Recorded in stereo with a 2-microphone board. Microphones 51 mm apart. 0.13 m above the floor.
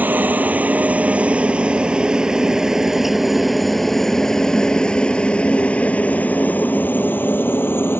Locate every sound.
0.0 s a helicopter: 35° right (ahead or behind); by 8.0 s 45° left (ahead or behind)